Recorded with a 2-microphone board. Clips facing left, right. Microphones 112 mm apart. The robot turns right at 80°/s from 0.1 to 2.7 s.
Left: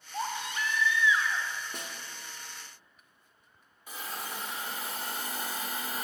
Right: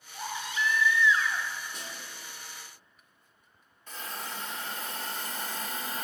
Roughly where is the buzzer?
No buzzer in this recording.